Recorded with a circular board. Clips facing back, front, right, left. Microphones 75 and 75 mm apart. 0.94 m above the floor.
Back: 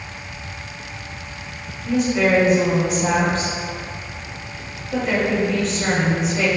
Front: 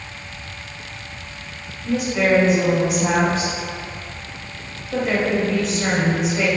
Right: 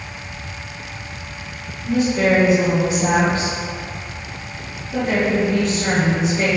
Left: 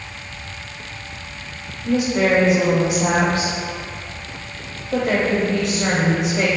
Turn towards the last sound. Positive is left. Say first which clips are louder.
# back 1 dB, right 1 dB
turn(degrees=85)